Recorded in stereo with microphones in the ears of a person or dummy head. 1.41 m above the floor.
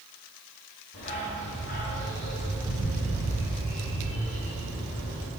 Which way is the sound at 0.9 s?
60° left (ahead or behind).